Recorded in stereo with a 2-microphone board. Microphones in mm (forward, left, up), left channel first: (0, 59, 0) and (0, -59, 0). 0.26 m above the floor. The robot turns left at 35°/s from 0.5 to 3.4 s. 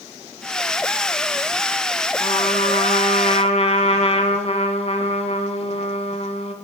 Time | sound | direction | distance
2.2 | a trumpet | 115° left | 1.4 m